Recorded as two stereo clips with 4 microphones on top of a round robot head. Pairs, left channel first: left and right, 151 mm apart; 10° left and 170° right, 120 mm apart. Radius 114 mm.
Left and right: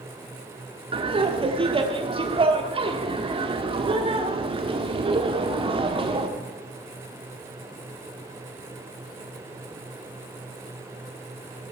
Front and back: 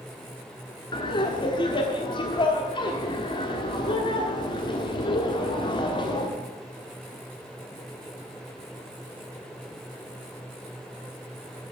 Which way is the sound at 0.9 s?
40° right.